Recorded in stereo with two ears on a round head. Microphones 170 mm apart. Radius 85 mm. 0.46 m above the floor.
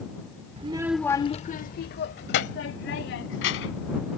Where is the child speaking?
35° right (ahead or behind); by 3.9 s 75° left (ahead or behind).